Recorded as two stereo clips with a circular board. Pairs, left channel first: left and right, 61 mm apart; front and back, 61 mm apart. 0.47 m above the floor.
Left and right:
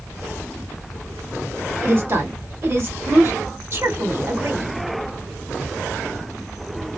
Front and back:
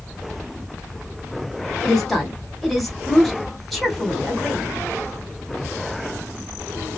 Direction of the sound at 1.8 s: 90° right.